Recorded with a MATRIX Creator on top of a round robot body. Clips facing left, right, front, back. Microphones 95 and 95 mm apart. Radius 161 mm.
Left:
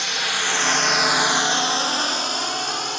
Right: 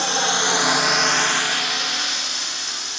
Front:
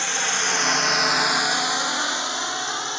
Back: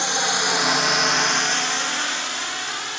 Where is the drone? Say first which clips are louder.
Right 5 dB, back 3 dB; 115° right; by 3.0 s 65° left.